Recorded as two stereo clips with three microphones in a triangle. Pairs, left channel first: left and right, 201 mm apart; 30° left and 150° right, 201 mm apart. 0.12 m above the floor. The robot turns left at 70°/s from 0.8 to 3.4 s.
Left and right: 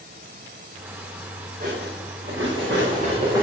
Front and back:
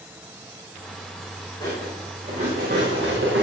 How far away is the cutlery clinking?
About 8 m.